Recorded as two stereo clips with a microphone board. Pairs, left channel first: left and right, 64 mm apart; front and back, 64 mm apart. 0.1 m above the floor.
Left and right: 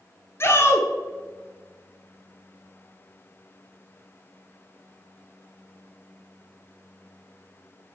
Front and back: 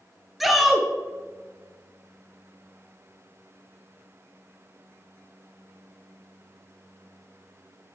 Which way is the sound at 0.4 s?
95° left.